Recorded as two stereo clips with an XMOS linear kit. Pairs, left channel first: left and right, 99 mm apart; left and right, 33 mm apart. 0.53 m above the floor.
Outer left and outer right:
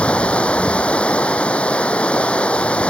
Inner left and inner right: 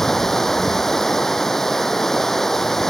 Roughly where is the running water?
Centre.